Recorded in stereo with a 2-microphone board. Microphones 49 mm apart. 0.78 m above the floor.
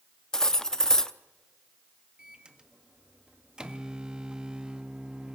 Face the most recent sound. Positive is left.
turn(degrees=-15)  # may be behind; listen again after turning